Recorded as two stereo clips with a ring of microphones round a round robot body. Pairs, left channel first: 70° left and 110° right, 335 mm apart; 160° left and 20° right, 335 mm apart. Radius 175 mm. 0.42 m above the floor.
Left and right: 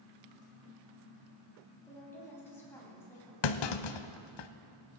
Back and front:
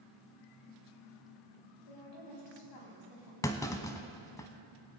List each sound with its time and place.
1.9 s a woman speaking: 150° left, 4 m
3.4 s a clunk: 75° left, 0.6 m